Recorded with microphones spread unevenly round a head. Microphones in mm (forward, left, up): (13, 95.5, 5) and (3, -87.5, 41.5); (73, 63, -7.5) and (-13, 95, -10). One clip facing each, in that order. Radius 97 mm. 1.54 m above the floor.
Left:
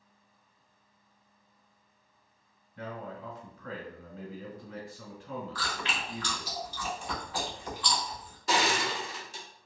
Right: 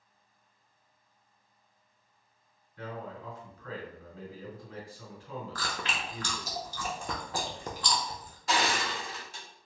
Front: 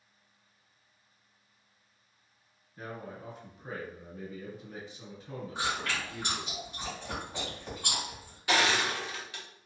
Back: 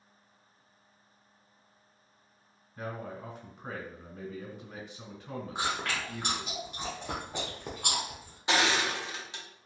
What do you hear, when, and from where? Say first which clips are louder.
2.8 s a man speaking: left 1 dB, back 3 dB; 135° left, 1.7 m
5.5 s chewing: even, even; 145° right, 0.6 m
8.5 s crushing: left 1 dB, even; 95° left, 0.9 m